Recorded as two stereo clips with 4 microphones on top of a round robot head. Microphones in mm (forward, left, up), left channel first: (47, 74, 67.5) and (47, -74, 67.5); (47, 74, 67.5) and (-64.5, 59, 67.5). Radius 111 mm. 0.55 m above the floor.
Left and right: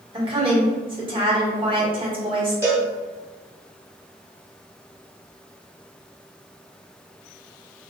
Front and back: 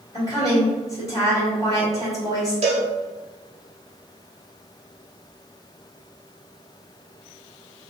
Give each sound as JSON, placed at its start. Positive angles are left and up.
{"t": 0.1, "sound": "a woman speaking", "azimuth_deg": -45, "distance_m": 1.8}
{"t": 2.6, "sound": "a cowbell", "azimuth_deg": -165, "distance_m": 0.9}